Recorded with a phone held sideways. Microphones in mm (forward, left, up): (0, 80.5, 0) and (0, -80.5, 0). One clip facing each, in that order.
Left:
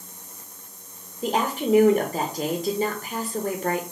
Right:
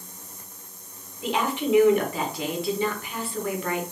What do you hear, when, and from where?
1.2 s a woman speaking: 40° left (ahead or behind), 0.6 m